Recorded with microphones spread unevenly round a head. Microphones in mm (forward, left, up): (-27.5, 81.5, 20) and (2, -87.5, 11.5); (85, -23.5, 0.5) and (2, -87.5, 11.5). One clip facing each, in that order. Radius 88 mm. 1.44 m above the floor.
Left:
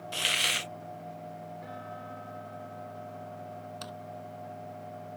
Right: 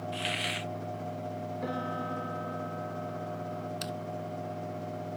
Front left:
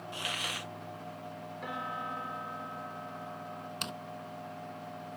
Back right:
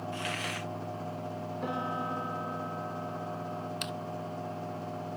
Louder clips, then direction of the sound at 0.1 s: Right 3 dB, back right 4 dB; 120° left.